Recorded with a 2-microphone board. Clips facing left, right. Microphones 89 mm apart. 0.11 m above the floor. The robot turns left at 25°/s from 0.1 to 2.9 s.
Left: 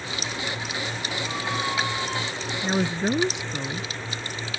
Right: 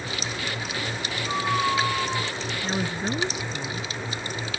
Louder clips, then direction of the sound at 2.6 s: Left 5 dB; 20° left (ahead or behind).